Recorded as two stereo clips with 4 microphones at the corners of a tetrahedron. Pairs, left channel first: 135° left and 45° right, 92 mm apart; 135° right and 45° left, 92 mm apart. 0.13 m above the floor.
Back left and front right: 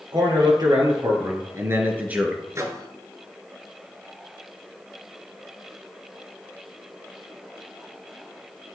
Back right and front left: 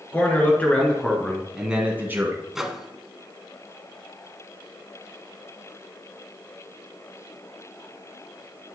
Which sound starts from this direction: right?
A man speaking, at 0.1 s.